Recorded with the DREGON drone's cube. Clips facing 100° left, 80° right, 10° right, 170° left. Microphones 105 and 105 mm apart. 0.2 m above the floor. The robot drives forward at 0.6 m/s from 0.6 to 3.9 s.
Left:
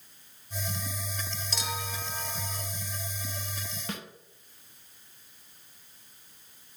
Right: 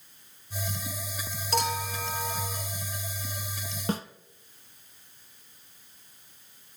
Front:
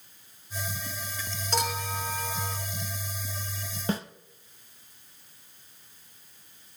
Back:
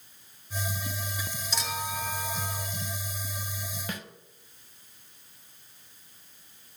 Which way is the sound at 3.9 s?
50° right.